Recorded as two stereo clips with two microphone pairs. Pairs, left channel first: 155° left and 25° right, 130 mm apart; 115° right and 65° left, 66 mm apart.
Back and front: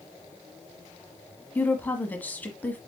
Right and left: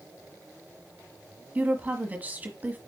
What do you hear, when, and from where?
1.6 s a woman speaking: 90° left, 1.3 m